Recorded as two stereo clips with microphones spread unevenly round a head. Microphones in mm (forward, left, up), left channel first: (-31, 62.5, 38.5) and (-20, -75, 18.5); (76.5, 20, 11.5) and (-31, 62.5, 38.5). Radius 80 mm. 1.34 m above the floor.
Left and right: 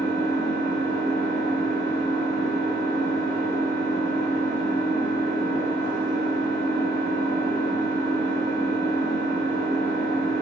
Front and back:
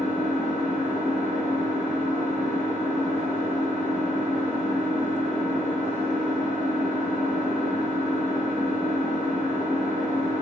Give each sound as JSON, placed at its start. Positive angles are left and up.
{"t": 0.0, "sound": "an engine running", "azimuth_deg": -120, "distance_m": 2.0}